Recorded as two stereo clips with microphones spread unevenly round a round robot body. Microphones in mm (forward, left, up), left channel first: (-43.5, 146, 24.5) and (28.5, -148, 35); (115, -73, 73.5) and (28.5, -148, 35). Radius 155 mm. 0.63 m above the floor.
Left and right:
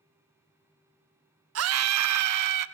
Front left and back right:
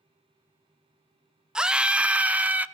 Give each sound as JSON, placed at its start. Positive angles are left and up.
{"t": 1.6, "sound": "a scream", "azimuth_deg": -80, "distance_m": 0.8}